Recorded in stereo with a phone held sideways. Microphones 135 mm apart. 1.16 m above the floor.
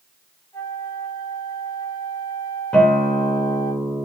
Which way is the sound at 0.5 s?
30° left (ahead or behind).